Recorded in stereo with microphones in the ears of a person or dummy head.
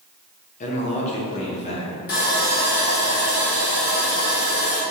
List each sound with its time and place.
0.6 s a man speaking: 40° left (ahead or behind), 1.1 m; by 1.9 s 35° left (ahead or behind), 2.5 m
2.1 s sawing: 45° left (ahead or behind), 1.4 m